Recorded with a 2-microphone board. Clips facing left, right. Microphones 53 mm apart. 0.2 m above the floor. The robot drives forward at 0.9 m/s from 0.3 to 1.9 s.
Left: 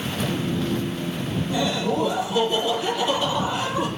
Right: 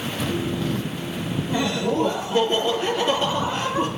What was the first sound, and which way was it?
Laughter, 45° right (ahead or behind).